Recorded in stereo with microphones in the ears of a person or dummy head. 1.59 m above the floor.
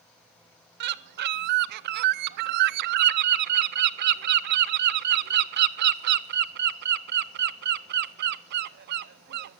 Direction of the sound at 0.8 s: 55° right (ahead or behind).